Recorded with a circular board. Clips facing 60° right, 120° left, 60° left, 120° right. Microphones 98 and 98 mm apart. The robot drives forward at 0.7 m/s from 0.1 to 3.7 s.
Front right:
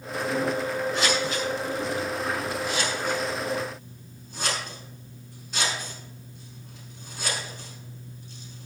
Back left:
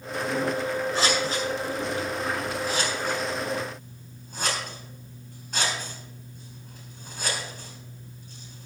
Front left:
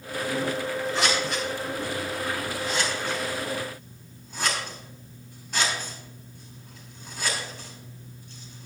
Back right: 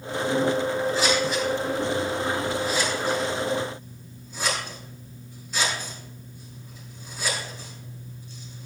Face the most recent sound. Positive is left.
turn(degrees=85)